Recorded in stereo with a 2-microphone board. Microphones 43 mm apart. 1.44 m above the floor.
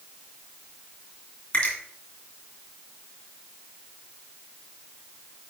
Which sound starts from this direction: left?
A finger snap, at 1.5 s.